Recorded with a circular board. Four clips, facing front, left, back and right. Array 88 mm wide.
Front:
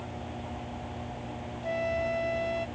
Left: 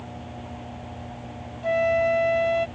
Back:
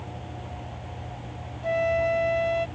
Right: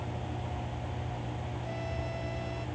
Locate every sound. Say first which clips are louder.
1.6 s a flute: left 20 dB, back 7 dB; 115° left